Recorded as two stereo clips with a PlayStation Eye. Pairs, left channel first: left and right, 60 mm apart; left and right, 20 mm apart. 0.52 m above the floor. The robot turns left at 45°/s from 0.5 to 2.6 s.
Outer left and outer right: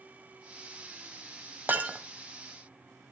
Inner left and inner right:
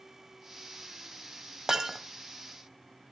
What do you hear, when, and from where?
1.7 s breaking glass: 30° right (ahead or behind), 1.4 m; by 2.0 s 15° right (ahead or behind), 1.4 m